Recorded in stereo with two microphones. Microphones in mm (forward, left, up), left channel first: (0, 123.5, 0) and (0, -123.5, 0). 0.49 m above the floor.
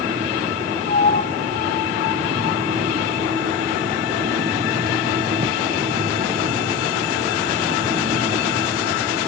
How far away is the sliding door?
About 2 m.